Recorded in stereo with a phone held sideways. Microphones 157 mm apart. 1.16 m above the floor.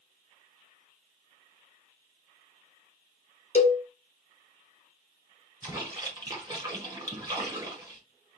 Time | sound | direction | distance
3.5 | a cowbell | 45° left (ahead or behind) | 0.6 m
5.6 | a splash | 25° right (ahead or behind) | 1.4 m